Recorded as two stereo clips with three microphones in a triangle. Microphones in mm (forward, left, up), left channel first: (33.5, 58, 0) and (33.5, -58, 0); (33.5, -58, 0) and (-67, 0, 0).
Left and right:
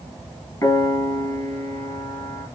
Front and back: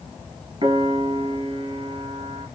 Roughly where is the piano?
Behind left.